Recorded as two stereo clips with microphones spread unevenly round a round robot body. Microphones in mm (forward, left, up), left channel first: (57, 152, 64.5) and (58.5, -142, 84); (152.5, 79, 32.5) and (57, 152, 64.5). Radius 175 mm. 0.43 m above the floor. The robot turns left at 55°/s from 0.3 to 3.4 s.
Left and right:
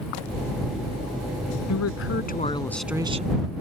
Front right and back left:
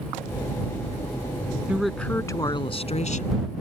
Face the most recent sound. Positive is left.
turn(degrees=-30)